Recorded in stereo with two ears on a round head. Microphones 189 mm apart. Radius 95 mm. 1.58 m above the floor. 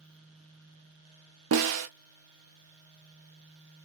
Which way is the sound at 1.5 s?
75° right (ahead or behind).